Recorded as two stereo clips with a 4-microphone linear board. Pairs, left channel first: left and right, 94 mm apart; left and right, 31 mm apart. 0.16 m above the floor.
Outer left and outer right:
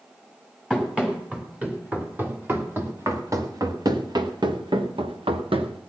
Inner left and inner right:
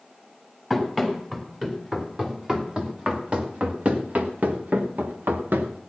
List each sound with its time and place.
0.7 s running footsteps: 5° right (ahead or behind), 3.5 m; by 5.8 s 80° right, 1.9 m